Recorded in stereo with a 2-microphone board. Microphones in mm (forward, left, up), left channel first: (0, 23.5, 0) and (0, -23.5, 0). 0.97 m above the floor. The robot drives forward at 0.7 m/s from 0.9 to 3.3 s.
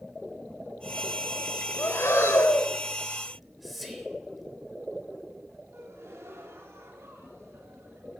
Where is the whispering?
Centre (ahead or behind), 3.5 m.